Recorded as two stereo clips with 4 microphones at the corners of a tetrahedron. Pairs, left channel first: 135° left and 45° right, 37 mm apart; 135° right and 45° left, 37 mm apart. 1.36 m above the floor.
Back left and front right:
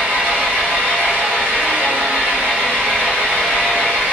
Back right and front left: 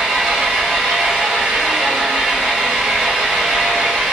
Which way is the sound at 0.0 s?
25° right.